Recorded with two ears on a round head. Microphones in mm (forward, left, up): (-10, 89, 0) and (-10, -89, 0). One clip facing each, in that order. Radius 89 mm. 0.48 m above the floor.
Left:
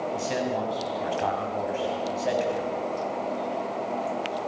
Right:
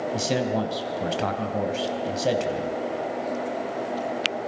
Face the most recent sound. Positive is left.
turn(degrees=-50)  # may be behind; listen again after turning